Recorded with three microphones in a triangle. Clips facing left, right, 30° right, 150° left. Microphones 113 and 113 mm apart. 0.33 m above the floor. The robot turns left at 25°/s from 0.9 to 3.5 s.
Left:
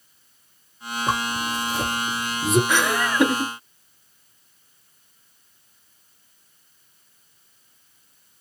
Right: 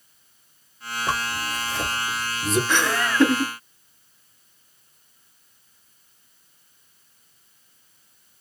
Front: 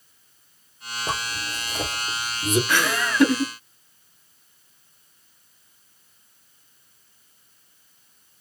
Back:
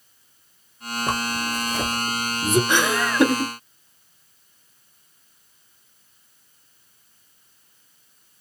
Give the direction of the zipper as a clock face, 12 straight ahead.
7 o'clock.